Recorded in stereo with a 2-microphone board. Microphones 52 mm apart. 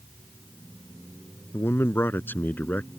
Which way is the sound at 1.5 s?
50° left (ahead or behind).